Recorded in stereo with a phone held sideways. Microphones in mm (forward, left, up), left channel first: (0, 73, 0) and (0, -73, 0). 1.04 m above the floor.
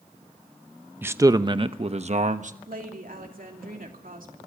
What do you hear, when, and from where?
1.0 s a man speaking: 15° right (ahead or behind), 0.8 m; by 2.5 s 60° right (ahead or behind), 1.2 m
2.7 s a woman speaking: 70° right (ahead or behind), 3 m